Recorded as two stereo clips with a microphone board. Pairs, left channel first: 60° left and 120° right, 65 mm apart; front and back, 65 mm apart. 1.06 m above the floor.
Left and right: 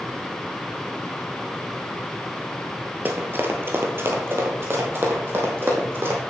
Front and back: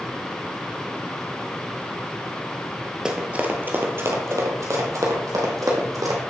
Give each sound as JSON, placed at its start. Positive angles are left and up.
{"t": 3.0, "sound": "running footsteps", "azimuth_deg": -115, "distance_m": 1.1}